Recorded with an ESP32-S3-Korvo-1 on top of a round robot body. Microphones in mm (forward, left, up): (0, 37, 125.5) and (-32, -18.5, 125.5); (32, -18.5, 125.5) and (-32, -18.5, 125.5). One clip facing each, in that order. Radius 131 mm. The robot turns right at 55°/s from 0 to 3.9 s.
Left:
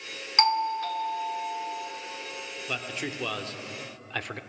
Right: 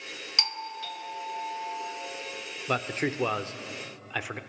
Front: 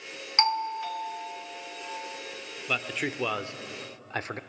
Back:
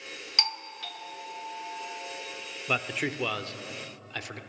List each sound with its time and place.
0.4 s a doorbell: 40° left, 1.8 m; by 1.9 s 125° left, 1.8 m
2.7 s a man speaking: 105° right, 1.1 m; by 4.4 s 40° right, 1.1 m